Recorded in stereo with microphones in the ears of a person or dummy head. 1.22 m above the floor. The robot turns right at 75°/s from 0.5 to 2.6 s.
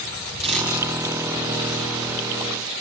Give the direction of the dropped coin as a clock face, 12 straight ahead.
5 o'clock.